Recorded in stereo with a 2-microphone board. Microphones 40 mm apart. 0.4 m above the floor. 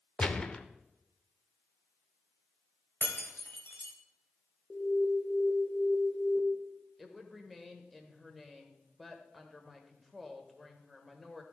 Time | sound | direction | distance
0.2 | a gunshot | 25° left (ahead or behind) | 0.6 m
3.0 | breaking glass | 60° left (ahead or behind) | 1.3 m
4.7 | an alarm | 30° left (ahead or behind) | 1.0 m
7.0 | a woman speaking | centre (ahead or behind) | 1.2 m